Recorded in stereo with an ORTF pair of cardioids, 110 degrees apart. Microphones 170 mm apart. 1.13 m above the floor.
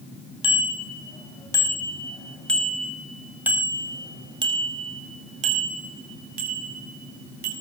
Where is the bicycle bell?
30° left, 6 m; by 7.5 s 65° right, 6.5 m.